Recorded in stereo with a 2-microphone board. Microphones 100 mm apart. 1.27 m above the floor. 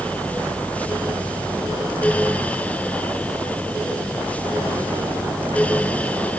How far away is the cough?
No cough in this recording.